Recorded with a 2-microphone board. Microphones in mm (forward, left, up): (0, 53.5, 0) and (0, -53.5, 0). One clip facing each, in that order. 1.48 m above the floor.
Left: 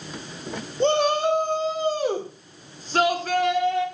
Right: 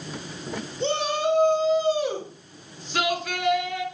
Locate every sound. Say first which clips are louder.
0.8 s a shout: left 5 dB; 55° left (ahead or behind), 4.5 m; by 3.9 s 35° left (ahead or behind), 5.5 m